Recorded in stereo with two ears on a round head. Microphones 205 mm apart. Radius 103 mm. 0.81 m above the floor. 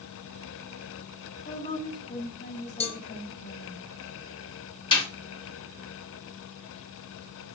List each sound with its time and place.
1.4 s a woman speaking: 35° left (ahead or behind), 3 m
2.8 s a cowbell: 30° left (ahead or behind), 0.9 m
4.9 s a snare drum: 20° left (ahead or behind), 2.5 m